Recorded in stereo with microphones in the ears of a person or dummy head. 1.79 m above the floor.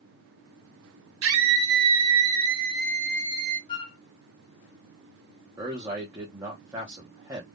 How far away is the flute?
About 0.6 m.